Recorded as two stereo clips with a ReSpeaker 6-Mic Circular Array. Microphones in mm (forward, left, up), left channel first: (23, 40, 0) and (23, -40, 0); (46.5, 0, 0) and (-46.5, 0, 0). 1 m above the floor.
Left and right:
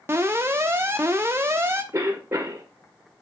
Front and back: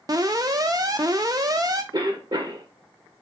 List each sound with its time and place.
0.1 s an alarm: 140° right, 0.5 m
1.9 s a cough: 145° right, 0.8 m